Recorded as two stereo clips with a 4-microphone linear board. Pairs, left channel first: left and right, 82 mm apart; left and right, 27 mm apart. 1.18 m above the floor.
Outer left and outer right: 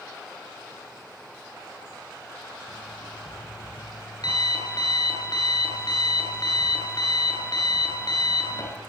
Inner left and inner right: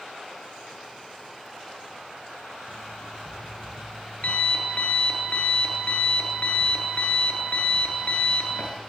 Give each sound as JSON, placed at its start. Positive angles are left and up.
{"t": 2.7, "sound": "an alarm clock", "side_deg": 55, "distance_m": 9.5}